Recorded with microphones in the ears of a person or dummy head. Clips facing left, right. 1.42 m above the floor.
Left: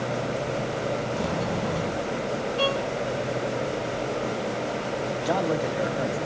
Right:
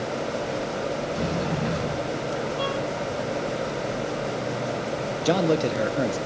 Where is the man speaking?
40° right (ahead or behind), 0.9 m.